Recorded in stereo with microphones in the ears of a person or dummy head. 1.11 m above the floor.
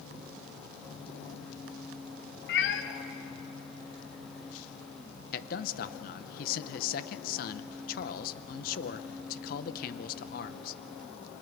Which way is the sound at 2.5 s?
55° left (ahead or behind).